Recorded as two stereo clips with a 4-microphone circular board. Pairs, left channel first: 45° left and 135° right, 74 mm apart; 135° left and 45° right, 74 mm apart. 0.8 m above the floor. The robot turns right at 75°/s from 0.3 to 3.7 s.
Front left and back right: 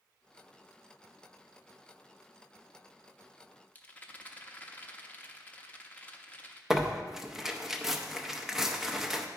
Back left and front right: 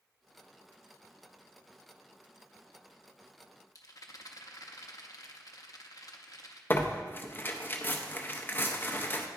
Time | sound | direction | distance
3.8 | a rattle | 110° left | 0.7 m
6.7 | tearing paper | 145° left | 0.6 m